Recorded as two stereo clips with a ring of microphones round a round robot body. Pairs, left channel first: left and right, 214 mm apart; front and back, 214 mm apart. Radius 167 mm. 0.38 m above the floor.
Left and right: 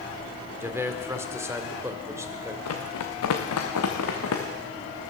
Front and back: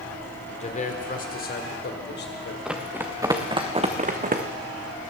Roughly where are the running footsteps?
Left.